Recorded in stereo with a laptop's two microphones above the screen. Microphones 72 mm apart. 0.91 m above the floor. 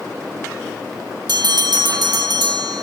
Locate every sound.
1.3 s a bell: 75° right (ahead or behind), 2.5 m